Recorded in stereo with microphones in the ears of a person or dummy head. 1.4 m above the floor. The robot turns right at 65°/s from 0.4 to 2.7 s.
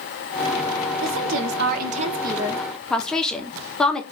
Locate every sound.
1.0 s a woman speaking: 105° right, 0.7 m; by 4.0 s 5° left, 0.7 m